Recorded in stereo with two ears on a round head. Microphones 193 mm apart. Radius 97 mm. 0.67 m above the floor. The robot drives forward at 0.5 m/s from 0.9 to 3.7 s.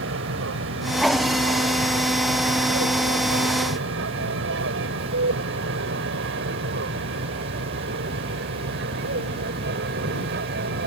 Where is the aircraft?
65° right (ahead or behind); by 10.9 s 55° right (ahead or behind).